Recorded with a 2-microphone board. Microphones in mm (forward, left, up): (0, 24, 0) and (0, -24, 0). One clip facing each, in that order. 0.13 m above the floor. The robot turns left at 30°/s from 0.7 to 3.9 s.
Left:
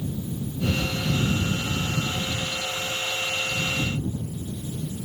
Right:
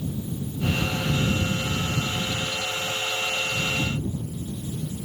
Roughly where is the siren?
No siren in this recording.